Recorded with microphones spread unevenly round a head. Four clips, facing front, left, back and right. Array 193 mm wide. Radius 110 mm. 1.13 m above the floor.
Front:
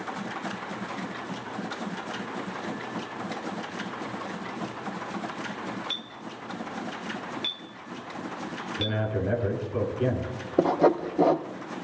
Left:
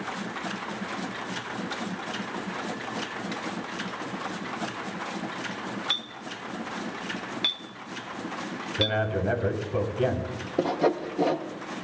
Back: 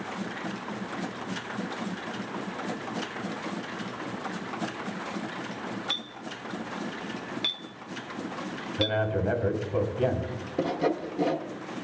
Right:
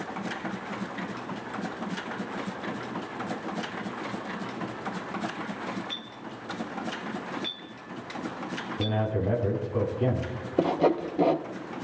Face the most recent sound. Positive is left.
turn(degrees=0)